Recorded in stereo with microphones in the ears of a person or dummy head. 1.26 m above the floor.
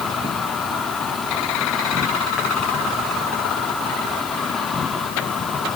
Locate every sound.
0.0 s an insect: 5° left (ahead or behind), 1.3 m